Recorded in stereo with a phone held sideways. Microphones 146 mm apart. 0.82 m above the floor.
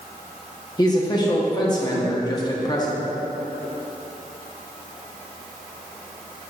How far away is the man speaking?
About 1.2 m.